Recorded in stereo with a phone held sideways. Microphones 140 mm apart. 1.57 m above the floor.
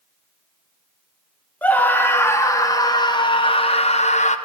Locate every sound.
1.6 s a scream: 10° left (ahead or behind), 2.0 m; by 4.4 s 55° left (ahead or behind), 1.4 m